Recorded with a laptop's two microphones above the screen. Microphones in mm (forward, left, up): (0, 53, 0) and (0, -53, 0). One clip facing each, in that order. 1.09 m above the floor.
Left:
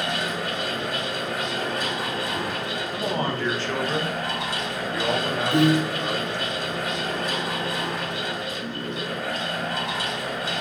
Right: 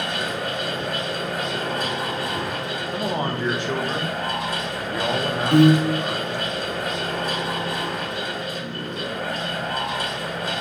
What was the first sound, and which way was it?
A fan, 50° right (ahead or behind).